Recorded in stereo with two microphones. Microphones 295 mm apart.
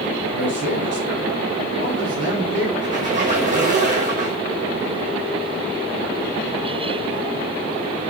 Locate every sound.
0.3 s a man speaking: 45° right (ahead or behind), 1.9 m
2.8 s a squeak: 25° right (ahead or behind), 1.4 m